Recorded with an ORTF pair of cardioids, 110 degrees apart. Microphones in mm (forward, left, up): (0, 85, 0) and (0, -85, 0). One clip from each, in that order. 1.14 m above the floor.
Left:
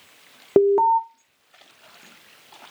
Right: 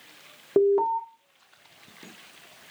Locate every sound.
0.6 s an alarm: 25° left, 0.5 m